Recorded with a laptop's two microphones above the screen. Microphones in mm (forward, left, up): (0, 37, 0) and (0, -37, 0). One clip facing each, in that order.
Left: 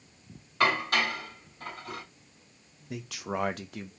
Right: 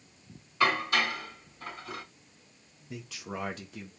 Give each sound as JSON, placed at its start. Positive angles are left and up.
{"t": 0.6, "sound": "dishes clattering", "side_deg": 65, "distance_m": 3.0}
{"t": 2.9, "sound": "a man speaking", "side_deg": 65, "distance_m": 0.7}